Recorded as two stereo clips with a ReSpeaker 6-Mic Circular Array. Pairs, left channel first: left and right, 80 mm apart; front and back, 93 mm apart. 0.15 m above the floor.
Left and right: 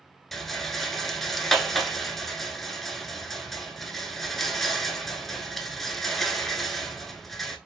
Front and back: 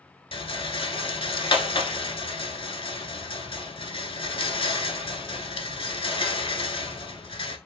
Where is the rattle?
Straight ahead, 0.6 m.